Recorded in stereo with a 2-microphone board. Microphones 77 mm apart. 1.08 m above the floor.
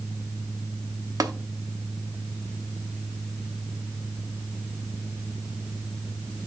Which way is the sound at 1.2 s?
45° right (ahead or behind).